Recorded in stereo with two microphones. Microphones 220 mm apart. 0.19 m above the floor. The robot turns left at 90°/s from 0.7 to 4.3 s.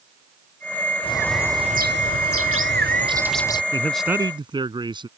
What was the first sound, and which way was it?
A bird, 30° left.